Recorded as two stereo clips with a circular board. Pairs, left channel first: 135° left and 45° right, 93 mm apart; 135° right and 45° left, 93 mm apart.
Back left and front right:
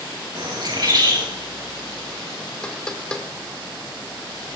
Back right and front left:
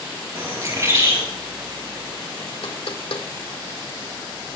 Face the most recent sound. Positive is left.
turn(degrees=-145)